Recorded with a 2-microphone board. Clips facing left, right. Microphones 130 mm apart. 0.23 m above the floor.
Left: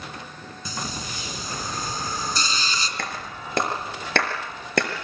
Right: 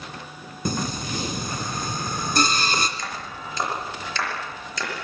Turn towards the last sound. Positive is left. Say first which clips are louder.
# left 1 dB
turn(degrees=60)  # may be behind; listen again after turning